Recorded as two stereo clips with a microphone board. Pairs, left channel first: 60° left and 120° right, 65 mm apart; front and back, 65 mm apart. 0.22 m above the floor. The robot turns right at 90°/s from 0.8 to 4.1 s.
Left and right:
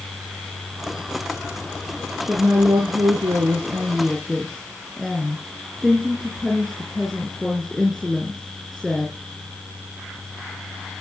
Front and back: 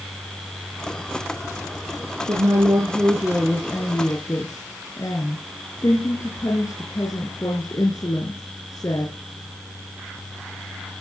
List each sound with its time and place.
2.3 s a woman speaking: 170° left, 5 m; by 9.1 s 25° right, 5 m